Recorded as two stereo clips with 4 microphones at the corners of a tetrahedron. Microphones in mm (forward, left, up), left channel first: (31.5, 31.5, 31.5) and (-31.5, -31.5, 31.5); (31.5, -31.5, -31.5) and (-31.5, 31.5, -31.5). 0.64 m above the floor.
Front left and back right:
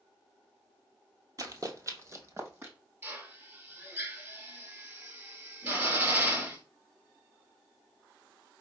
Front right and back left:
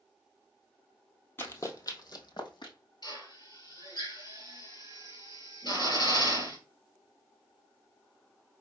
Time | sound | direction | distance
1.4 | running footsteps | 105° right | 1.0 m
3.0 | a drill | 75° right | 2 m